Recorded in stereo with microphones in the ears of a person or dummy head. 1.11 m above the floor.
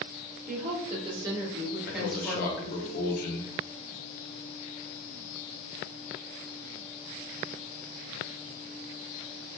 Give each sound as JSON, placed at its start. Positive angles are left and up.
{"t": 0.5, "sound": "a woman speaking", "side_deg": -35, "distance_m": 0.8}
{"t": 1.9, "sound": "a man speaking", "side_deg": 50, "distance_m": 0.6}